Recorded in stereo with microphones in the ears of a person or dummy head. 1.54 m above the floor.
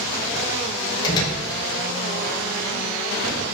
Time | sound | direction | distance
1.0 | a door slam | 25° left (ahead or behind) | 6 m